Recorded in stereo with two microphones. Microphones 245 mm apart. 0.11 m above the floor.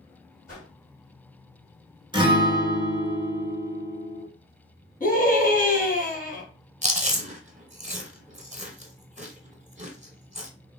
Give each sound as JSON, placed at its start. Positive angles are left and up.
{"t": 0.5, "sound": "a whoosh", "side_deg": 35, "distance_m": 1.9}
{"t": 2.1, "sound": "a guitar", "side_deg": -20, "distance_m": 0.7}
{"t": 5.0, "sound": "a scream", "side_deg": 35, "distance_m": 1.4}
{"t": 6.8, "sound": "chewing", "side_deg": -30, "distance_m": 0.6}